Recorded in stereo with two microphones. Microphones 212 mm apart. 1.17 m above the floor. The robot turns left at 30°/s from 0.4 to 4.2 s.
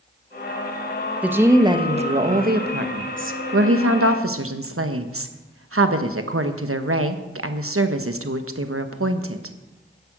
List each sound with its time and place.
1.2 s a woman speaking: 5° right, 1.0 m; by 9.6 s 95° right, 1.0 m